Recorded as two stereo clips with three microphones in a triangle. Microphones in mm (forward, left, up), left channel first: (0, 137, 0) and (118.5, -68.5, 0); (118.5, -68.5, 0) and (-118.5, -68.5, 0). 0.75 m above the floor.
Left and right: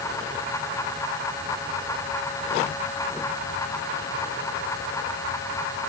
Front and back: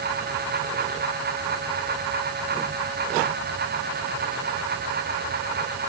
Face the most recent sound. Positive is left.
No sound to turn to.